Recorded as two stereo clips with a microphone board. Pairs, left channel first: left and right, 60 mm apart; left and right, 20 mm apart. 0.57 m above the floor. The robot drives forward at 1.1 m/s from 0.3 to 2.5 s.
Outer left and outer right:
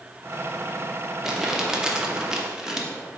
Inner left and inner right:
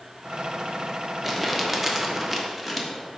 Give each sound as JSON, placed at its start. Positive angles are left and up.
{"t": 1.2, "sound": "crumpling", "side_deg": -10, "distance_m": 1.2}